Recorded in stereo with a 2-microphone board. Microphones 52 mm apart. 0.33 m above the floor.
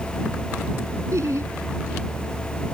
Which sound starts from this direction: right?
Laughter, at 1.1 s.